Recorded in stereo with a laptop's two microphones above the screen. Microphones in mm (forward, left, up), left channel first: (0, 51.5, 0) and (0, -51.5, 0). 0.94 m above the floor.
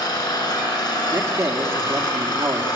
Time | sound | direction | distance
0.0 | an engine running | 40° left (ahead or behind) | 4 m
1.1 | a man speaking | 35° right (ahead or behind) | 2.5 m